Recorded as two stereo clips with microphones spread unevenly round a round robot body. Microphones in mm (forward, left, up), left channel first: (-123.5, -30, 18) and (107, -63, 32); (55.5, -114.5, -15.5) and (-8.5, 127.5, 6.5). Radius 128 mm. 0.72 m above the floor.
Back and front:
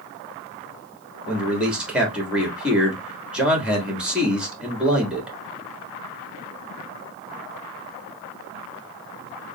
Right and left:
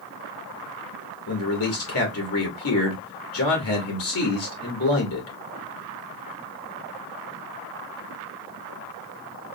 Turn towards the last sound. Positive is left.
turn(degrees=-95)